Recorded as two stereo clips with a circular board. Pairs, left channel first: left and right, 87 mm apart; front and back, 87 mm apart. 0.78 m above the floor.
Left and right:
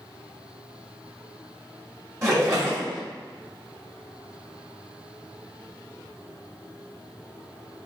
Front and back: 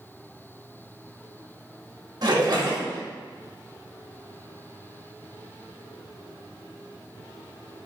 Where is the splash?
145° right, 1.5 m.